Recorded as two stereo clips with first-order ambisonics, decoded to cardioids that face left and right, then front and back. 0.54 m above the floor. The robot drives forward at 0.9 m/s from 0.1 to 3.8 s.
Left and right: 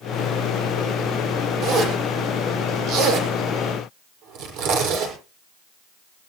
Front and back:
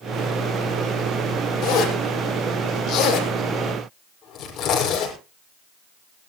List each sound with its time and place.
1.6 s a zipper: 45° right, 7 m; by 5.1 s 60° right, 6 m